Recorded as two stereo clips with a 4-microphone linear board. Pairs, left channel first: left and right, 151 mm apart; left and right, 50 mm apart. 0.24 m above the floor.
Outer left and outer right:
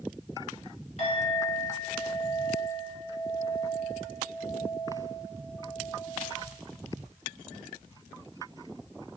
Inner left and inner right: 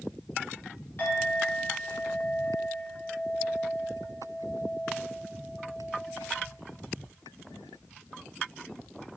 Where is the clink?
45° left (ahead or behind), 1.6 m.